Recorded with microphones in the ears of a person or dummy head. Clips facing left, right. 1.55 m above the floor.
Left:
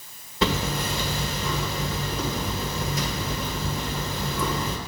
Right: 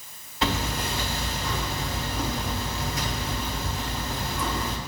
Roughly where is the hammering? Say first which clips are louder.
Left 3 dB; left.